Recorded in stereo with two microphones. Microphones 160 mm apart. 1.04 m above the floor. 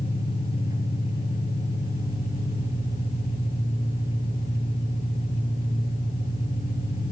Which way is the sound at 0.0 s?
70° left (ahead or behind).